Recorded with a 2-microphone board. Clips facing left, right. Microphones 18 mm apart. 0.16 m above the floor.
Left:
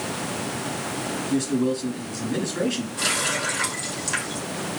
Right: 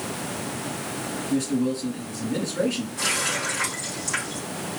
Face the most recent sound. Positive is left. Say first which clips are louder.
# left 1 dB
turn(degrees=35)  # may be behind; listen again after turning